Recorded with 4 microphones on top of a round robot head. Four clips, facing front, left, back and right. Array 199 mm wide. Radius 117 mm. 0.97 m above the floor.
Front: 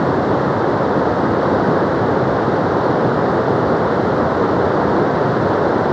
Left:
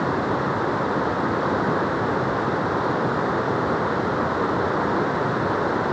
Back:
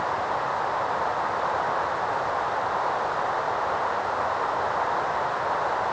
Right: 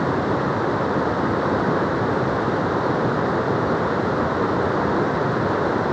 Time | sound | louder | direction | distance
0.0 | running water | right 2 dB, front 11 dB | 5° right | ?